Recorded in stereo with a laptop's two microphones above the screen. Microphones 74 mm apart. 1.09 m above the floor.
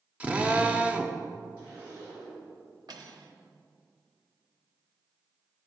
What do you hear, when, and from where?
0.2 s a drill: 20° right (ahead or behind), 0.6 m
1.6 s a zipper: 25° right (ahead or behind), 2 m
2.9 s cutlery clinking: 60° right (ahead or behind), 0.8 m